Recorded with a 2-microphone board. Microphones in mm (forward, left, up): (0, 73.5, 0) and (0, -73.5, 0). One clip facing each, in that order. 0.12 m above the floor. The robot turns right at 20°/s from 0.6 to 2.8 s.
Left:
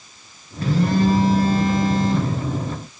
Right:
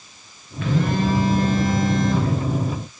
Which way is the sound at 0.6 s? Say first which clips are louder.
Left 3 dB; 100° left.